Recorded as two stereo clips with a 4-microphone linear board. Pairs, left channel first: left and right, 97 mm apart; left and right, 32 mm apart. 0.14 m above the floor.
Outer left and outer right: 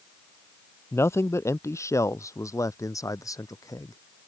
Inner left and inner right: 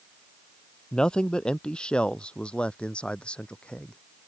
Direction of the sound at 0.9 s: 25° left (ahead or behind).